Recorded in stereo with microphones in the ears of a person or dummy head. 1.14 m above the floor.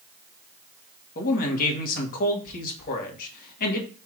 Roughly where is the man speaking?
Left.